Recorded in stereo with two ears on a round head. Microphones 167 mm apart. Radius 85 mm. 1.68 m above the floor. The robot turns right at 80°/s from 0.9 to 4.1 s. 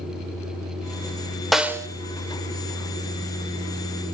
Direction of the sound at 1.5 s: Centre (ahead or behind).